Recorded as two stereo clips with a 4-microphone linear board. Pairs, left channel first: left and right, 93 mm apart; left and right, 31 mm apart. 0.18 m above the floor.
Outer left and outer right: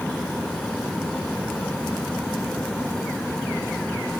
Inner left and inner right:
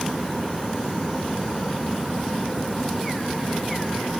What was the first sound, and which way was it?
Only background noise.